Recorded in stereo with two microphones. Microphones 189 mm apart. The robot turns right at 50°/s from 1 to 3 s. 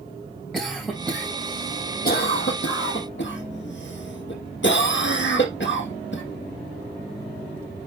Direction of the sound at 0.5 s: Centre (ahead or behind).